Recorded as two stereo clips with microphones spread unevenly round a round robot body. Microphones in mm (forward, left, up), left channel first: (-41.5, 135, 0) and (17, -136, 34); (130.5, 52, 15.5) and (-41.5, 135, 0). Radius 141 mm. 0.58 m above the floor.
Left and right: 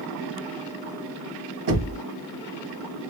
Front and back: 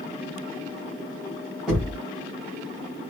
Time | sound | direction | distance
1.7 | knocking | 120° right | 1.5 m